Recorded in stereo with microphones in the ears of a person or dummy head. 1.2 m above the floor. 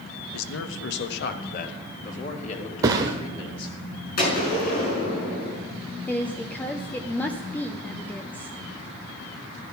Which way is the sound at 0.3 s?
80° left.